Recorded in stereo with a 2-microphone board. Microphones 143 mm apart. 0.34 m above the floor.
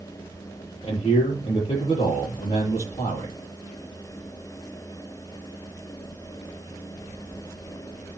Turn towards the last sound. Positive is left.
turn(degrees=45)  # may be behind; listen again after turning